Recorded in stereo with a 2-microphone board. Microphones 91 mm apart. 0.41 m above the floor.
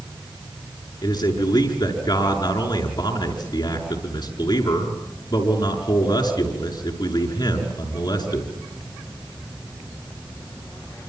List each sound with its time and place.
1.0 s a man speaking: 50° left (ahead or behind), 6 m